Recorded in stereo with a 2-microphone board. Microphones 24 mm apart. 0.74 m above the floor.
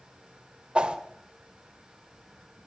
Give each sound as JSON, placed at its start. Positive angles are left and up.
{"t": 0.8, "sound": "a whoosh", "side_deg": -50, "distance_m": 1.8}